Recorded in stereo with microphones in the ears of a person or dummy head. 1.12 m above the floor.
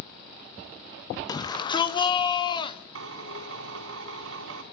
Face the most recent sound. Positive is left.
turn(degrees=-85)